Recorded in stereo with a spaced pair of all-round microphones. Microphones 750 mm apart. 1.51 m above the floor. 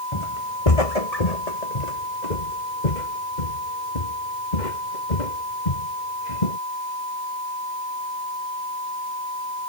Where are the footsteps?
40° left (ahead or behind); by 6.6 s 65° left (ahead or behind).